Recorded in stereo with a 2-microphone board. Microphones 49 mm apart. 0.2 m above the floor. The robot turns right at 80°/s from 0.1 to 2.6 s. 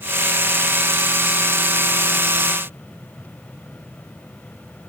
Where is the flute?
I don't hear a flute.